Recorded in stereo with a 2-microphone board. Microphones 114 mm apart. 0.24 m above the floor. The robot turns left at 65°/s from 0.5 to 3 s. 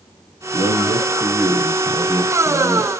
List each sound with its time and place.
0.5 s a man speaking: 115° right, 2 m; by 2.9 s 90° left, 2 m